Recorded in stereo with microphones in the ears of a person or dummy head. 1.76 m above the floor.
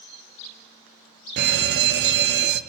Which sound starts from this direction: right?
A fire alarm, at 1.4 s.